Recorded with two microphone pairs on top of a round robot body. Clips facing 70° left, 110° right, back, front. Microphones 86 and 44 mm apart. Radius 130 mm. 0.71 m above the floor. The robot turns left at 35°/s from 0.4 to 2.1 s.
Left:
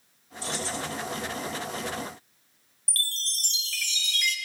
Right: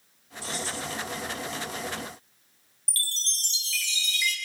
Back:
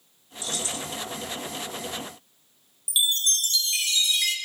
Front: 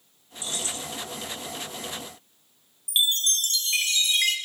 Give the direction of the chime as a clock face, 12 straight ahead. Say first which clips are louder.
Left 2 dB, front 1 dB; 10 o'clock.